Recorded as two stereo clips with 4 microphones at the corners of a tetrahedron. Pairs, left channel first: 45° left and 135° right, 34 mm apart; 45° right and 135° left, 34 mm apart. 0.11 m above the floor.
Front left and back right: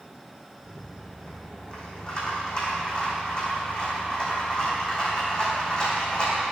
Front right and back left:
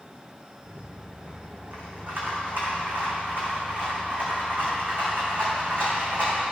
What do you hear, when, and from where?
0.6 s a rattle: 105° left, 2.5 m